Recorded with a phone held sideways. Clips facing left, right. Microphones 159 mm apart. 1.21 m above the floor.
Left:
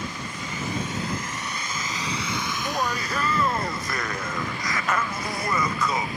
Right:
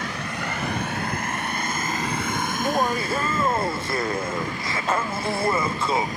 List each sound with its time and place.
0.0 s a vehicle: 80° right; by 6.2 s 40° right (ahead or behind)
2.5 s laughter: 25° right (ahead or behind)